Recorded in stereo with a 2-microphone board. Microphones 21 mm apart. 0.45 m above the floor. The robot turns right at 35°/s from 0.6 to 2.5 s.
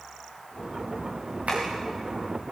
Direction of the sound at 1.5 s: 75° right (ahead or behind).